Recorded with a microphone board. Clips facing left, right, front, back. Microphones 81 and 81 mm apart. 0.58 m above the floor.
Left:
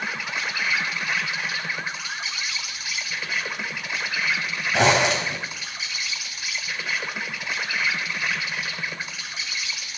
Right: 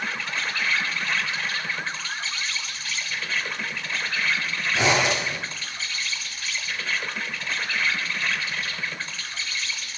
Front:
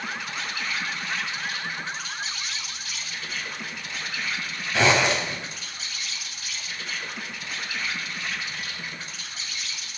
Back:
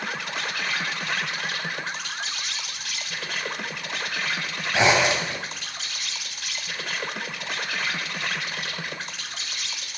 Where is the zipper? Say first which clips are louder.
Left 3 dB, back 1 dB; 110° left, 4 m.